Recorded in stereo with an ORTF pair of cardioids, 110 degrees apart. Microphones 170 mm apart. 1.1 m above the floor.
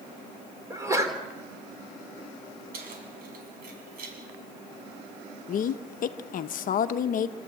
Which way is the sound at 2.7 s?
60° right.